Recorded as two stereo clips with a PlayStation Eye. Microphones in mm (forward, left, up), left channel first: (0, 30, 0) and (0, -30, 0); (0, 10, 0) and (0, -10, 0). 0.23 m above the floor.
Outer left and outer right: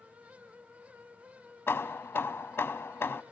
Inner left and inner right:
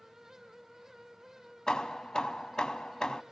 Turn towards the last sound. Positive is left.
turn(degrees=40)  # may be behind; listen again after turning